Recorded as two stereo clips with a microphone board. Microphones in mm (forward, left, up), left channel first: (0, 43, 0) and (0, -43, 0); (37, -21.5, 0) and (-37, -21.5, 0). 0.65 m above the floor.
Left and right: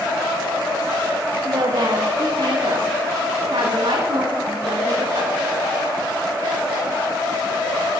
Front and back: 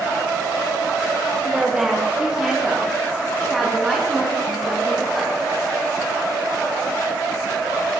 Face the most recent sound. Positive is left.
turn(degrees=-95)